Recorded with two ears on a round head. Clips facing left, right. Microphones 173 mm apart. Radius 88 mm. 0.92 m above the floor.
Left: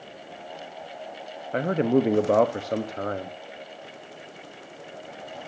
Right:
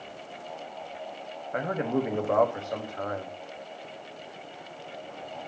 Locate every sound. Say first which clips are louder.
1.5 s a man speaking: left 6 dB; 40° left (ahead or behind), 1.1 m